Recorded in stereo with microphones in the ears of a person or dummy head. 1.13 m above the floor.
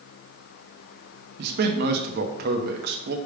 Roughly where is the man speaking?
Right.